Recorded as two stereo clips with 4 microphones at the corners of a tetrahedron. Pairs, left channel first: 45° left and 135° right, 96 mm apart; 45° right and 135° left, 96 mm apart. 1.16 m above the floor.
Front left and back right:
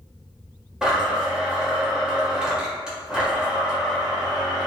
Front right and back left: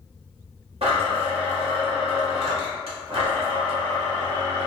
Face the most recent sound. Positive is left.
turn(degrees=140)